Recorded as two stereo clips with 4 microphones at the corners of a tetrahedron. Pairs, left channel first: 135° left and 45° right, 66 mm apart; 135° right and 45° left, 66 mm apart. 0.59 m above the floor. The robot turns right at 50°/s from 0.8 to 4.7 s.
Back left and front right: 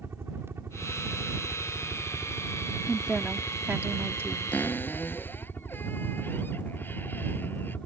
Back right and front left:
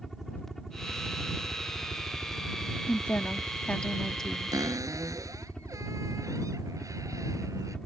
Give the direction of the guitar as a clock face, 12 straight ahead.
No guitar in this recording.